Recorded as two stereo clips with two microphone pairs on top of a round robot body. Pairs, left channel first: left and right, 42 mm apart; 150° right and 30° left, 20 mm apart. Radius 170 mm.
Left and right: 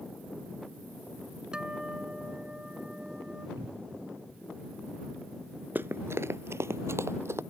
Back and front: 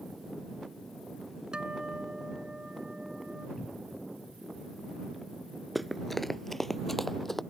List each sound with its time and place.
1.5 s a guitar: 15° right
3.6 s a cupboard door: 70° right
5.8 s running footsteps: 30° right; by 7.4 s 70° right